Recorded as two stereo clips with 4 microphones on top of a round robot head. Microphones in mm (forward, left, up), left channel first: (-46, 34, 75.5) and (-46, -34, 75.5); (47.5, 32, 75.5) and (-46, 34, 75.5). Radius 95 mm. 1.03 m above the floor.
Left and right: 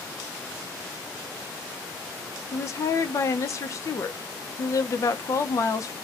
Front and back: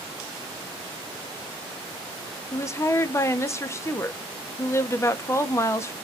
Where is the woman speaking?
55° left, 0.6 m.